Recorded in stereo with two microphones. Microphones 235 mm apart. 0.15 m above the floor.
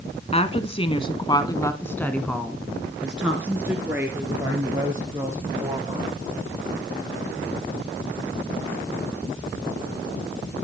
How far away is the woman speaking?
About 1.3 m.